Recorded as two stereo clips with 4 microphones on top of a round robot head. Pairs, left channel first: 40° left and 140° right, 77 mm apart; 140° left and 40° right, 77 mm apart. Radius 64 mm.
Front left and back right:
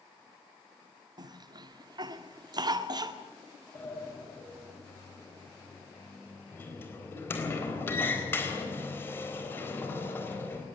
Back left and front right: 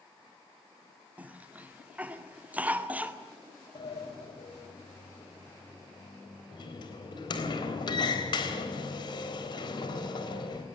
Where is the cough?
110° right, 1.9 m.